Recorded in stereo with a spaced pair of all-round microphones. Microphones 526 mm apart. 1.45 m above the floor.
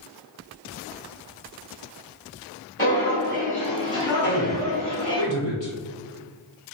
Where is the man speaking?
60° left (ahead or behind), 1.1 m.